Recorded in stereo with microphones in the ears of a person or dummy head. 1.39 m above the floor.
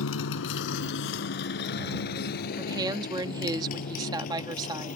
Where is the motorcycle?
80° left; by 5.0 s 50° left (ahead or behind).